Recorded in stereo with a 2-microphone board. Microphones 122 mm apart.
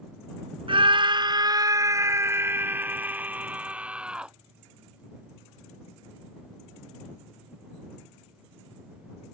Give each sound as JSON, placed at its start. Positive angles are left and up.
{"t": 0.7, "sound": "a scream", "side_deg": -50}